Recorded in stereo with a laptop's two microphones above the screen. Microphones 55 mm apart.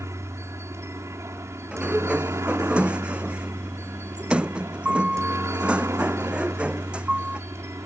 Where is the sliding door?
20° right (ahead or behind).